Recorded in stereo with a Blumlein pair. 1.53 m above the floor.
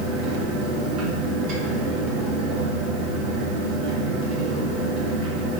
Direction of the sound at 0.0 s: 35° right.